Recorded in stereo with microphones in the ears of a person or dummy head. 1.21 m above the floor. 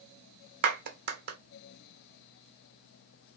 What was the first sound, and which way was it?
A clap, 55° right (ahead or behind).